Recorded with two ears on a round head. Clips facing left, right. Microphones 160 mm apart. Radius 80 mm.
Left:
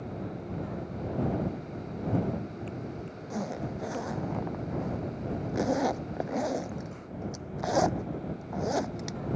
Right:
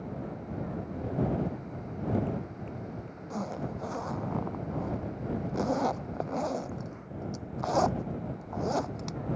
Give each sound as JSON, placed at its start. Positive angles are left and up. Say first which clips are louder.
{"t": 3.3, "sound": "a zipper", "louder": "left 1 dB", "side_deg": 10}